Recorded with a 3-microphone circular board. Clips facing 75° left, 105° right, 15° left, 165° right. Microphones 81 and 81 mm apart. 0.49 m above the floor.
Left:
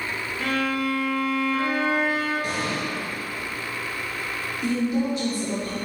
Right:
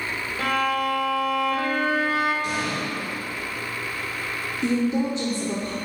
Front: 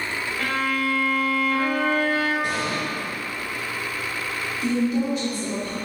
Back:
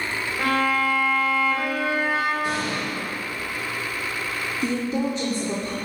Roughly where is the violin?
Right.